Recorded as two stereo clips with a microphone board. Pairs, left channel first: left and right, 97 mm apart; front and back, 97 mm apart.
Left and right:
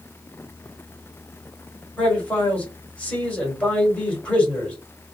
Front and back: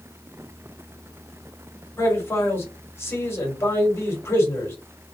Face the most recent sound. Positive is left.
turn(degrees=30)